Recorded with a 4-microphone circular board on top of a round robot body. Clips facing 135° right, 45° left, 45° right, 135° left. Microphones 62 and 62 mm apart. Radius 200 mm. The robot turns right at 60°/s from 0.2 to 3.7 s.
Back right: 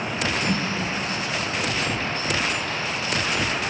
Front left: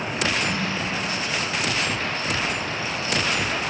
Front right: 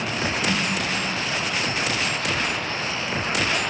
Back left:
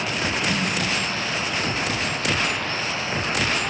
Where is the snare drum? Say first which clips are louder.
Back right 1 dB, even; 105° right, 1.0 m; by 0.7 s 90° right, 1.0 m.